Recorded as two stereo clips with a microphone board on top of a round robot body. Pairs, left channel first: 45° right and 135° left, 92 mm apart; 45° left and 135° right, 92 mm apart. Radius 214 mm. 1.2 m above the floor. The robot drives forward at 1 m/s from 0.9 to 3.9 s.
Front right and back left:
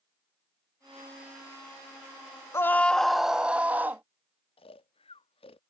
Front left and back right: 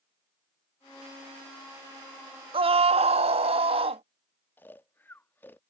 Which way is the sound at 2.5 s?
110° right.